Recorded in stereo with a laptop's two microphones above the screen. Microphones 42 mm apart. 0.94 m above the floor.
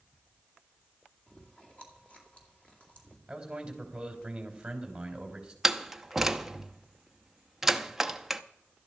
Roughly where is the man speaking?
Centre.